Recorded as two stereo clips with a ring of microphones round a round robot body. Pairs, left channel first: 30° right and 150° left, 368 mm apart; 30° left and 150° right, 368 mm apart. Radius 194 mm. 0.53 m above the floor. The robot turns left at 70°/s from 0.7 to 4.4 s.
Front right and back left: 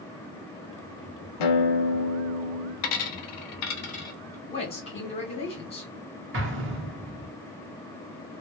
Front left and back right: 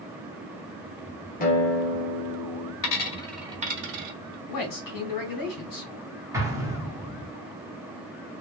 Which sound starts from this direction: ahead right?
A guitar, at 1.4 s.